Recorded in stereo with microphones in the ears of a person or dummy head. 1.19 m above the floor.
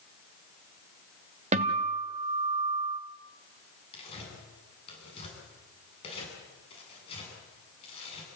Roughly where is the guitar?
Right.